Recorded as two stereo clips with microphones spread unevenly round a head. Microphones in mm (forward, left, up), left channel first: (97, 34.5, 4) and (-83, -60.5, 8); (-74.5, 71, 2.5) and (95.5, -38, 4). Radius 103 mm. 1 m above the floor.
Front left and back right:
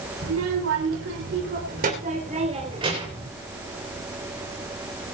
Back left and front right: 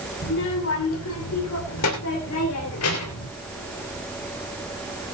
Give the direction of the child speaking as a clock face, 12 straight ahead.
6 o'clock.